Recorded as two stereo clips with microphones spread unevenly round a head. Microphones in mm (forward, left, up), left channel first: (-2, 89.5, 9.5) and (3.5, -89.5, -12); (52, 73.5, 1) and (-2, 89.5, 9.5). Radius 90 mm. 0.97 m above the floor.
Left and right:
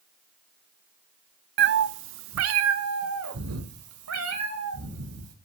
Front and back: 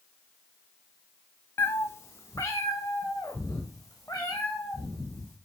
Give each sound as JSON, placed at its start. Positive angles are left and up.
{"t": 1.6, "sound": "a cat meowing", "azimuth_deg": -75, "distance_m": 0.5}